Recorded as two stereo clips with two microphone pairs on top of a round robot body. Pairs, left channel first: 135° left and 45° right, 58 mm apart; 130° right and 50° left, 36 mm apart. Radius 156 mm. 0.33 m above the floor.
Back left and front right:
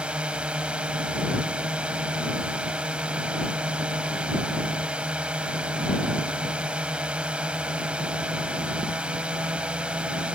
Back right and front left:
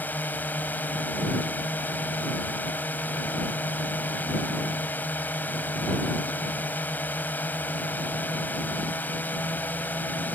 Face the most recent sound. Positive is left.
turn(degrees=-110)